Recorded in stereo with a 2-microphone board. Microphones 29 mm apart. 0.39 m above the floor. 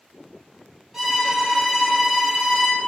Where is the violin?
5° right (ahead or behind), 1.3 m.